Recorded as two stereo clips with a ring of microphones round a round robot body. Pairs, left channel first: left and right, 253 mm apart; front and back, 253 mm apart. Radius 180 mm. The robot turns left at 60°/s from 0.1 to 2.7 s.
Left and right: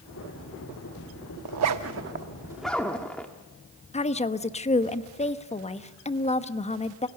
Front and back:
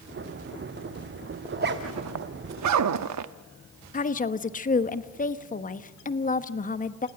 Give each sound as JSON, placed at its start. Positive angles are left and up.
{"t": 1.4, "sound": "a zipper", "azimuth_deg": -110, "distance_m": 0.8}
{"t": 3.9, "sound": "a woman speaking", "azimuth_deg": 40, "distance_m": 1.1}